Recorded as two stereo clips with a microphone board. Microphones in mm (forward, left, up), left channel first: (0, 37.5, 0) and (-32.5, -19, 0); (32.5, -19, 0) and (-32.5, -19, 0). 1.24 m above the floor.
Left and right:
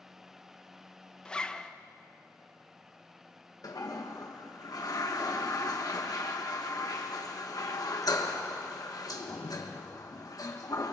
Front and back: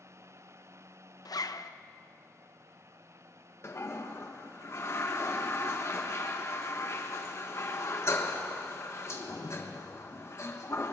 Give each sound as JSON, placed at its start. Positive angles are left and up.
{"t": 1.2, "sound": "a zipper", "azimuth_deg": -15, "distance_m": 0.6}
{"t": 3.6, "sound": "a toilet flushing", "azimuth_deg": 45, "distance_m": 1.4}